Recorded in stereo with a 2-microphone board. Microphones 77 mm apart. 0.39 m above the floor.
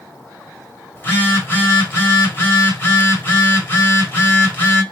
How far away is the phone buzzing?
About 1.2 m.